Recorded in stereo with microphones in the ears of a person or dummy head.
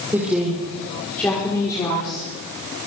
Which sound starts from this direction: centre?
A woman speaking, at 0.1 s.